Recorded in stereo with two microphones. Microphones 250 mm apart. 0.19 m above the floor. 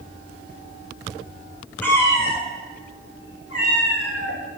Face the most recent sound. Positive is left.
turn(degrees=65)  # may be behind; listen again after turning